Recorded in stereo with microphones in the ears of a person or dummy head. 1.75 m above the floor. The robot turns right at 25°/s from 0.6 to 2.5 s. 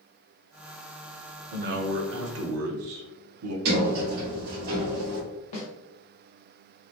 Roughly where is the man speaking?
Right.